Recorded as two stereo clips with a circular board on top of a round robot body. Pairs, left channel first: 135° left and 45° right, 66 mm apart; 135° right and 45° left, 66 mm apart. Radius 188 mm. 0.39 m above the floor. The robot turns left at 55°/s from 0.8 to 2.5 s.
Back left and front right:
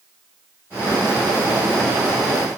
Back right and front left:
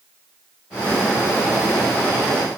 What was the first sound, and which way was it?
Only background noise.